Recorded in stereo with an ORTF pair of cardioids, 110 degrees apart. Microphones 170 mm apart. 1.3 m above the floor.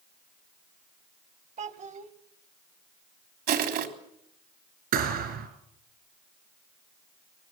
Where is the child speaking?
45° right, 1.9 m.